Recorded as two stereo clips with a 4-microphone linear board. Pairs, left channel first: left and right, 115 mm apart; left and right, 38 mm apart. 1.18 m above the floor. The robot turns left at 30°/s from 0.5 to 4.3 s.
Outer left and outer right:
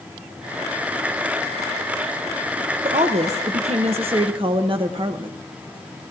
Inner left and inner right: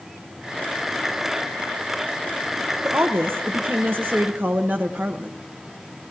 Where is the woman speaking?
80° right, 0.7 m; by 5.4 s 125° right, 0.7 m.